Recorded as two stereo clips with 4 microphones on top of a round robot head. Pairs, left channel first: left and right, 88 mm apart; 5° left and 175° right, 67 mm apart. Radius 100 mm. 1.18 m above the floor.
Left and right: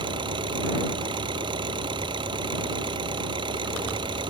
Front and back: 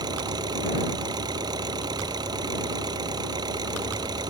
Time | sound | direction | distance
0.0 | an engine running | 135° right | ?